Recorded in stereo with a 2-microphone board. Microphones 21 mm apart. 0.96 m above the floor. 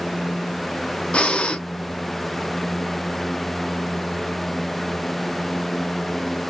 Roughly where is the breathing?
Left.